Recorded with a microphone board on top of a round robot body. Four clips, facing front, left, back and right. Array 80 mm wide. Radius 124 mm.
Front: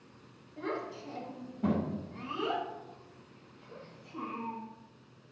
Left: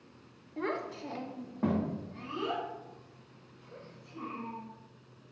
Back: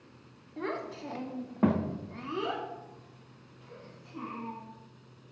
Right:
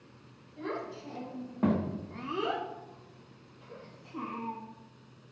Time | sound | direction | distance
0.6 | a child speaking | 120° left | 1.3 m